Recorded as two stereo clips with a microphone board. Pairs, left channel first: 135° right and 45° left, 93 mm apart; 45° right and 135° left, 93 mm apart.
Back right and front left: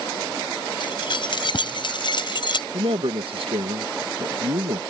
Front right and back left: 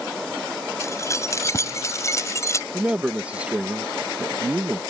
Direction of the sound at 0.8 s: 105° right.